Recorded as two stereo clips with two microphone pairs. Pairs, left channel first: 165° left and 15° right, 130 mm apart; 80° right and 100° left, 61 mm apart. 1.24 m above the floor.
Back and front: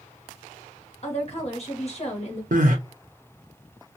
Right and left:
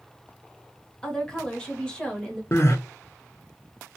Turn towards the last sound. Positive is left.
turn(degrees=-35)